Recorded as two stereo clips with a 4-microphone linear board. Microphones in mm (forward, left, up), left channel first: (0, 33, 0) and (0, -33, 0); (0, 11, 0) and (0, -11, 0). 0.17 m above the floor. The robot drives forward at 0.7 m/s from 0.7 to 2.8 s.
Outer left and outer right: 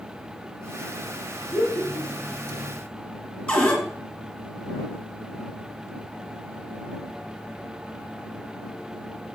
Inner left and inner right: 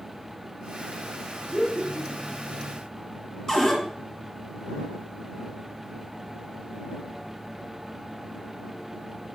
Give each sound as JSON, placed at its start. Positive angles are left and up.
{"t": 1.5, "sound": "laughter", "side_deg": 55, "distance_m": 3.5}
{"t": 3.5, "sound": "a cupboard door", "side_deg": 20, "distance_m": 2.0}